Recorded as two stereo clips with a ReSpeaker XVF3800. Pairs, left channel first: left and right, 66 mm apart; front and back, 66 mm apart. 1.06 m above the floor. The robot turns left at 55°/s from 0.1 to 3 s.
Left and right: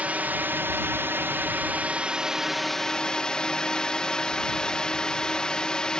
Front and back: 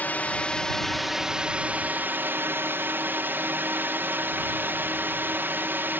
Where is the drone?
40° right; by 6.0 s 160° left.